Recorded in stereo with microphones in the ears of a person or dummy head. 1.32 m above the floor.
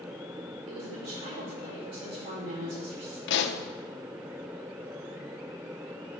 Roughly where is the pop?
Left.